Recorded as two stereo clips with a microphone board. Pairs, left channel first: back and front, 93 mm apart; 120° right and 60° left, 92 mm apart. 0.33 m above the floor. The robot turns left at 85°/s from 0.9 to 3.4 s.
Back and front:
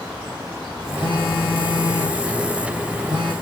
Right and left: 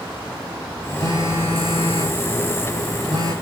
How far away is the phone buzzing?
About 8 m.